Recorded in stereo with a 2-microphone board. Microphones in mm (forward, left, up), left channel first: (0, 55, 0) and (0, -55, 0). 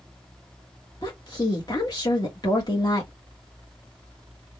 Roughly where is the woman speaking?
Left.